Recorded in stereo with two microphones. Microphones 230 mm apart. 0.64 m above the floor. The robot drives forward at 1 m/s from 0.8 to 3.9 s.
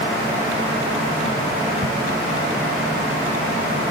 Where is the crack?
50° right (ahead or behind).